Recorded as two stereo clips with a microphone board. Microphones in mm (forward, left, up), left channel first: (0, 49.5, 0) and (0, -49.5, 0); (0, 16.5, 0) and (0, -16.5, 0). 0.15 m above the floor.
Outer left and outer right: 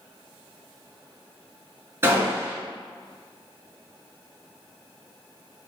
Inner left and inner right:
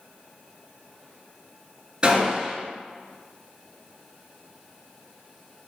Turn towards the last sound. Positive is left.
turn(degrees=-25)  # may be behind; listen again after turning